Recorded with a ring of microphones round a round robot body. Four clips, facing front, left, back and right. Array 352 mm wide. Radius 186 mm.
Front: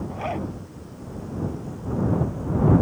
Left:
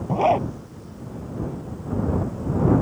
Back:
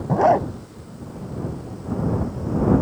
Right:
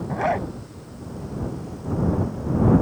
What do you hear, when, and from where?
0.1 s a zipper: 160° left